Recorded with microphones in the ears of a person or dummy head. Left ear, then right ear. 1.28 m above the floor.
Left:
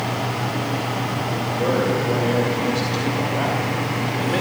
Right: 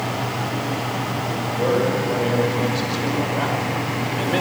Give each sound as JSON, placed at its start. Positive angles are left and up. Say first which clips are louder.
{"t": 1.5, "sound": "a man speaking", "louder": "right 1 dB", "side_deg": -10, "distance_m": 7.0}